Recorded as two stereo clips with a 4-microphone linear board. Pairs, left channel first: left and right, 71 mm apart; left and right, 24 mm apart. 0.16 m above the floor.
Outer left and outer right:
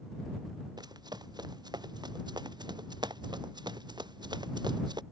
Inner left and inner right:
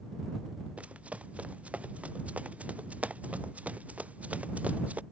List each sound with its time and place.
0.8 s running footsteps: 70° right (ahead or behind); by 5.0 s 80° right